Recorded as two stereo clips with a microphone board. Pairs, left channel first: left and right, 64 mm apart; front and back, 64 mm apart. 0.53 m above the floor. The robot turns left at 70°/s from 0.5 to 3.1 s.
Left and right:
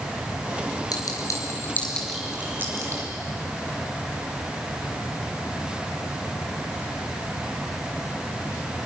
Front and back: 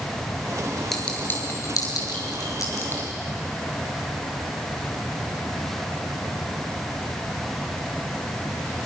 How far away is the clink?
About 4.5 m.